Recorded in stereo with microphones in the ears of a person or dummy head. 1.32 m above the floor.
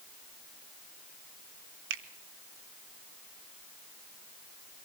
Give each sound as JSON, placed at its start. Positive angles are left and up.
{"t": 1.9, "sound": "a finger snap", "side_deg": -65, "distance_m": 1.4}